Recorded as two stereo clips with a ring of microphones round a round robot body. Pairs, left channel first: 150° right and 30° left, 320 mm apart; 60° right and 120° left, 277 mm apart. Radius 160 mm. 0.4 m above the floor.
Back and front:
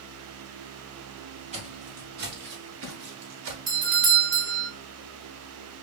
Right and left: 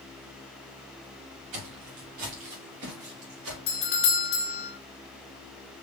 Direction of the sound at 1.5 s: 100° left.